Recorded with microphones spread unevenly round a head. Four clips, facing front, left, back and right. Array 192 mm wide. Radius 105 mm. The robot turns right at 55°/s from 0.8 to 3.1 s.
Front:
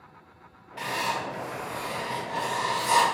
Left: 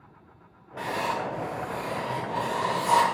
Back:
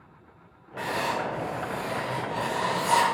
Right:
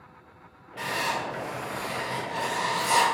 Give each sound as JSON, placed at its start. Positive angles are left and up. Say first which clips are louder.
{"t": 0.8, "sound": "writing", "louder": "left 1 dB, back 2 dB", "azimuth_deg": -15, "distance_m": 1.9}